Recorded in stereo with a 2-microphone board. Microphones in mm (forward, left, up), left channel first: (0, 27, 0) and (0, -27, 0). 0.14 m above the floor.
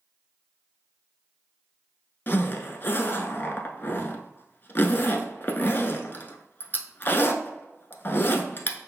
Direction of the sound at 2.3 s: 40° left (ahead or behind).